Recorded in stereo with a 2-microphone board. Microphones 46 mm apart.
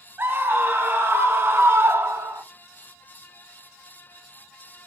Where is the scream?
45° right (ahead or behind), 3 m; by 2.4 s 55° right (ahead or behind), 1.9 m.